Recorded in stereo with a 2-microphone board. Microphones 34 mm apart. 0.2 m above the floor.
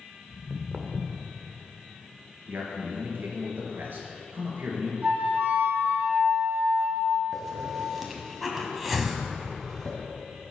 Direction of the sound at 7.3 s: Centre (ahead or behind).